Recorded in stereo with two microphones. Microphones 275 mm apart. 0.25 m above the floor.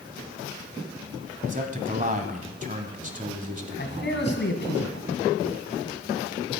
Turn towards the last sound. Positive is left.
turn(degrees=40)  # may be behind; listen again after turning